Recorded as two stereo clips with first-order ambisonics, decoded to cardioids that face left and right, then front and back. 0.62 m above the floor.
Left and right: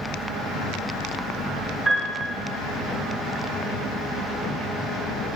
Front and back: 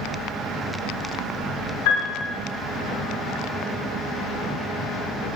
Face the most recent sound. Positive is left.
turn(degrees=0)